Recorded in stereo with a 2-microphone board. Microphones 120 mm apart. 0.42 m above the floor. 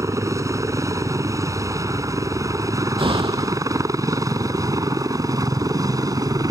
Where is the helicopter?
25° right (ahead or behind); by 6.5 s 30° right (ahead or behind).